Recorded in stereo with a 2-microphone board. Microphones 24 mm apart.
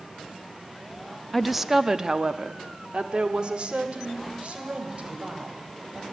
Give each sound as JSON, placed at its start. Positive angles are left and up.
{"t": 1.3, "sound": "a woman speaking", "side_deg": 0, "distance_m": 0.6}